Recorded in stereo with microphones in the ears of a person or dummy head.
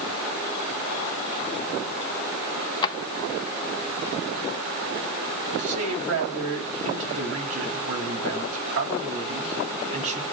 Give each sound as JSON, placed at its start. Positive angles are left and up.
{"t": 2.8, "sound": "a drawer", "side_deg": 25, "distance_m": 0.9}
{"t": 5.6, "sound": "a man speaking", "side_deg": -85, "distance_m": 7.0}